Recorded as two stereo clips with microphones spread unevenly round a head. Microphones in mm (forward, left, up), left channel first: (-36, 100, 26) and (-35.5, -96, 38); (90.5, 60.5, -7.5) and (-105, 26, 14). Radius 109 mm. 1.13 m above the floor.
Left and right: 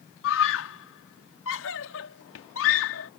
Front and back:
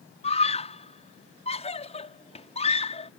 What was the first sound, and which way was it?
A scream, 70° left.